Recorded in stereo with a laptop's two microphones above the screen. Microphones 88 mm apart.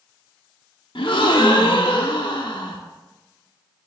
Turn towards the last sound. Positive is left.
turn(degrees=70)  # may be behind; listen again after turning